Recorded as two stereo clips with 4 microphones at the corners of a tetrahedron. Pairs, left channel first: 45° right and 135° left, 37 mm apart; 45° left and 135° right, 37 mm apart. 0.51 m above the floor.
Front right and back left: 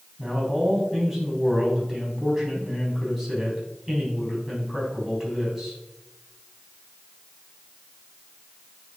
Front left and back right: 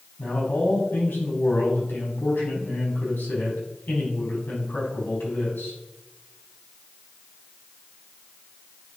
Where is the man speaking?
50° left, 4 m.